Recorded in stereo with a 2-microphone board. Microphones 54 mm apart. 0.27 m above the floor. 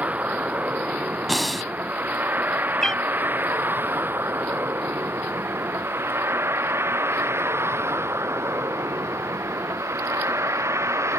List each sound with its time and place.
0.0 s a vehicle: 30° right (ahead or behind); by 11.2 s 65° right (ahead or behind)
1.3 s breathing: centre (ahead or behind)
2.8 s a cat meowing: 10° left (ahead or behind)